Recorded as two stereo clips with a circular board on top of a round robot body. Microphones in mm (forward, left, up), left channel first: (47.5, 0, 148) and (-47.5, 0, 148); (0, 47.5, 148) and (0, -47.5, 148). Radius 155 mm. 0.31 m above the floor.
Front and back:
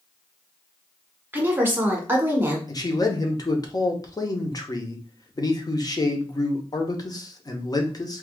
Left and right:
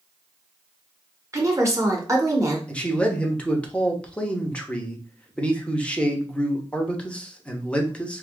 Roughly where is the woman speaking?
Behind right.